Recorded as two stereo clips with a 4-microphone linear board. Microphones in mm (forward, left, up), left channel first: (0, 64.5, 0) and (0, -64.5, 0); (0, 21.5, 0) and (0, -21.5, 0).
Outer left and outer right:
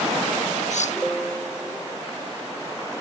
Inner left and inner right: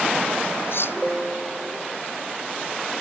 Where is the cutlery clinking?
65° left (ahead or behind).